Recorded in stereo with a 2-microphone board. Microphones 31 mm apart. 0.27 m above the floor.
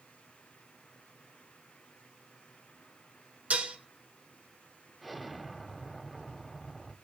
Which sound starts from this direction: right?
Dishes clattering, at 3.5 s.